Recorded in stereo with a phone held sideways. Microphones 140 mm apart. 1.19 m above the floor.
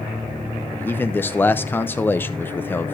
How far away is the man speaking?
About 0.6 m.